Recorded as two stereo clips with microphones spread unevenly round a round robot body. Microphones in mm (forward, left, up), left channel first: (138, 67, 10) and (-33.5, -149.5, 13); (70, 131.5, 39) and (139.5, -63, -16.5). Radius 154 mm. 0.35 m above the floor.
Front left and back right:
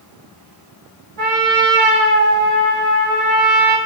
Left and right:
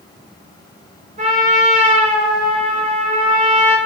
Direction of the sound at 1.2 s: 125° right.